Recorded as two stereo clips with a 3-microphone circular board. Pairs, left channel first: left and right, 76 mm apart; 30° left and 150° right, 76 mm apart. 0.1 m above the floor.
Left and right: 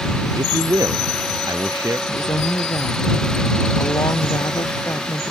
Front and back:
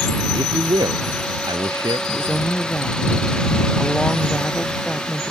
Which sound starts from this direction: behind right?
A man speaking, at 0.3 s.